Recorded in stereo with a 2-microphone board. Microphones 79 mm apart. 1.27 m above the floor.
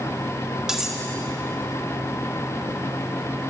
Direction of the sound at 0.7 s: 5° right (ahead or behind).